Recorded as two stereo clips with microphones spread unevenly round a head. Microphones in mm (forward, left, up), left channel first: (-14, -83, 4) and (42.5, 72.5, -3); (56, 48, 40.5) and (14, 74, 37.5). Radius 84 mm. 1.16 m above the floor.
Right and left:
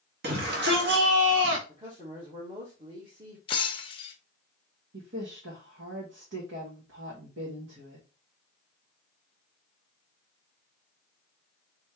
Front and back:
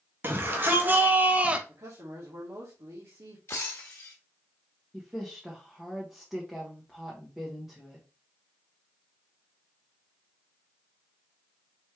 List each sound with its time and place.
0.2 s a shout: 105° left, 1.9 m; by 1.6 s 80° left, 1.2 m
1.7 s a man speaking: 130° left, 1.5 m
3.5 s breaking glass: 70° right, 0.7 m
4.9 s a woman speaking: 65° left, 1.5 m